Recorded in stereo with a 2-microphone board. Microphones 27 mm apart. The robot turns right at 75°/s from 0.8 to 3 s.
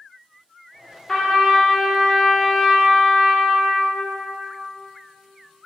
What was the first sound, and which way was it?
A trumpet, 20° left (ahead or behind).